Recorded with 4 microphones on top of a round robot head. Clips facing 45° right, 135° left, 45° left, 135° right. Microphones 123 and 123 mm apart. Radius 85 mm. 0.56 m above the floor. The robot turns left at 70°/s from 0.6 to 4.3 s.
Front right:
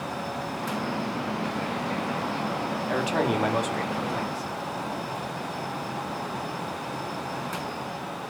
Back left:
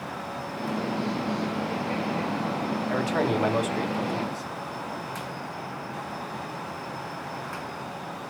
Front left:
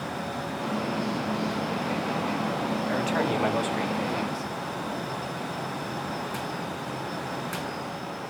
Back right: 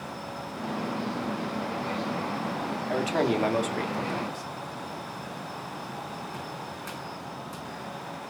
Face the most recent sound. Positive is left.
turn(degrees=175)